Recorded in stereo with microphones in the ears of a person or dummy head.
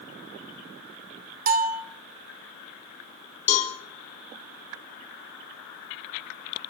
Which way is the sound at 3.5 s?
40° left (ahead or behind).